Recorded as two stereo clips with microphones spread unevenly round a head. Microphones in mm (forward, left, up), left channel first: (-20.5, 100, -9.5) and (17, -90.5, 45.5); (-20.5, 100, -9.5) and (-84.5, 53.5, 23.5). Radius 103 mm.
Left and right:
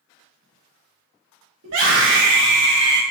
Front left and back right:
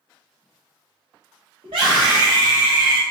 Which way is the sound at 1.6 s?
100° right.